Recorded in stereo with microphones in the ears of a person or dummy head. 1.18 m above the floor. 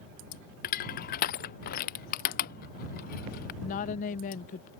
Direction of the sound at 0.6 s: 45° left (ahead or behind).